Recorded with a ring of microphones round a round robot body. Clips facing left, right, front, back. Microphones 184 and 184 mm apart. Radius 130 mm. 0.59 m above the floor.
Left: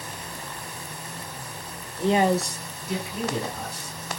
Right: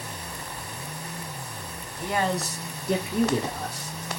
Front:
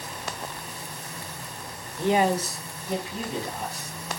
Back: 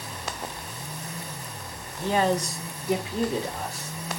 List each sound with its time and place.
2.0 s a man speaking: 55° left, 0.7 m; by 4.0 s 115° right, 1.5 m